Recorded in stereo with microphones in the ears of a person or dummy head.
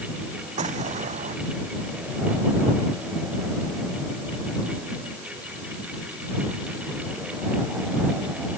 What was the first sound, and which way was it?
An explosion, 40° right (ahead or behind).